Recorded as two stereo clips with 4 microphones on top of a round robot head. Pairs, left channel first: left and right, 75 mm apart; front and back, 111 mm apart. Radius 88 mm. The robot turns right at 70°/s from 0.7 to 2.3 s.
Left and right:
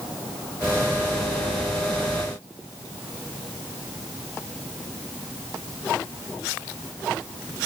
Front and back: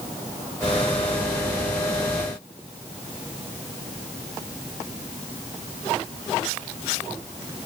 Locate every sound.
Only background noise.